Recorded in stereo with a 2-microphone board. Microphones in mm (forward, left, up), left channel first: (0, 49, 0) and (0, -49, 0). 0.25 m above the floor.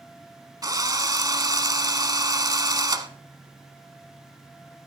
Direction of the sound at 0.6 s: 40° right (ahead or behind).